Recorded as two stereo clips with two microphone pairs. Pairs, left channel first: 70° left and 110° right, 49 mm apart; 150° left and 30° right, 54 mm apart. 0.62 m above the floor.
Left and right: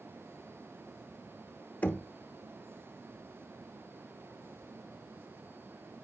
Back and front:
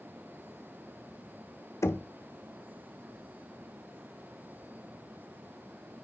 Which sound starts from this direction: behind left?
Knocking, at 1.8 s.